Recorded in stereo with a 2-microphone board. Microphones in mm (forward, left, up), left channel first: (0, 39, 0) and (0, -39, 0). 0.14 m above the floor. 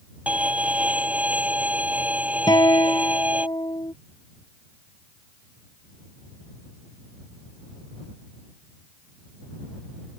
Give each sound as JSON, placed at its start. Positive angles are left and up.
{"t": 0.3, "sound": "a violin", "side_deg": -15}
{"t": 2.5, "sound": "a guitar", "side_deg": 60}